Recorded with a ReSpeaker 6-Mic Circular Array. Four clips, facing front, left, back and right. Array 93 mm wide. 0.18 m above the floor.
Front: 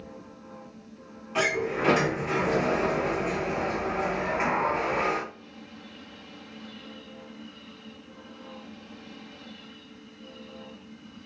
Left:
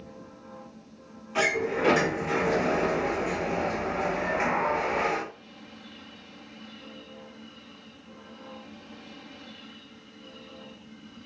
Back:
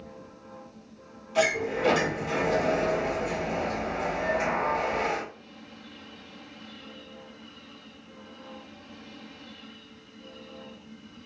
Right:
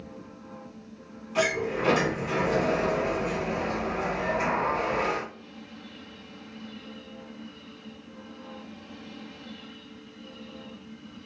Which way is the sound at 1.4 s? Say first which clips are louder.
Even, back 1 dB; 20° left.